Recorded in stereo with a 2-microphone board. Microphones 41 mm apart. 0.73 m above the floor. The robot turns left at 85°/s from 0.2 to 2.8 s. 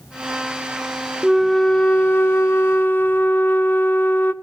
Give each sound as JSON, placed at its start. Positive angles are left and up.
{"t": 1.2, "sound": "a flute", "azimuth_deg": -165, "distance_m": 0.6}